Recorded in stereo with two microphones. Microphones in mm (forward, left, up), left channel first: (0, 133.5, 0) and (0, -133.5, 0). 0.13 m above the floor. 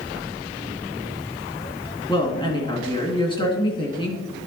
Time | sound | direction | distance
2.1 | a woman speaking | 20° left (ahead or behind) | 1.7 m